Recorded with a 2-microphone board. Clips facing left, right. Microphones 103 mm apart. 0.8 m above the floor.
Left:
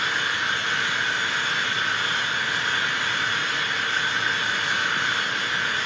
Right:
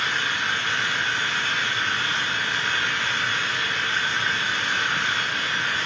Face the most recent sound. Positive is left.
turn(degrees=5)  # may be behind; listen again after turning